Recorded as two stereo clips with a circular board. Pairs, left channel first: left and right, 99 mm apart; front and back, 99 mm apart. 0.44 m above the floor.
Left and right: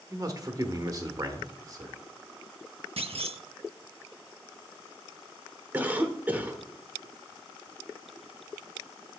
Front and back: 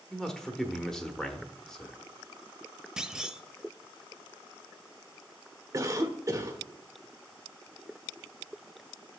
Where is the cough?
155° right, 1.2 m.